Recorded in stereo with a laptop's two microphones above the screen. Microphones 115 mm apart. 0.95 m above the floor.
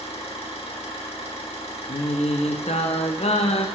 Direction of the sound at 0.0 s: 60° left (ahead or behind).